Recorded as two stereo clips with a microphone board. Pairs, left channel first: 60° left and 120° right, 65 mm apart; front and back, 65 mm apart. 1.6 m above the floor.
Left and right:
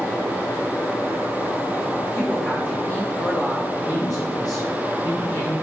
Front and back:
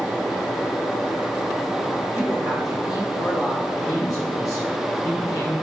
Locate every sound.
2.1 s a woman speaking: 5° right, 1.7 m
3.7 s a man speaking: 40° left, 1.9 m